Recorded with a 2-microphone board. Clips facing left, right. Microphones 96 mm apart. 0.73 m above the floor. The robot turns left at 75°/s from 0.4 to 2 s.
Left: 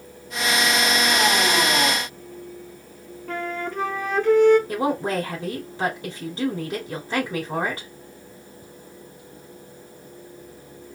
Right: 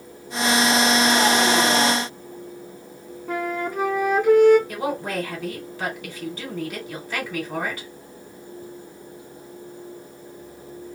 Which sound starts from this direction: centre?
A flute, at 3.3 s.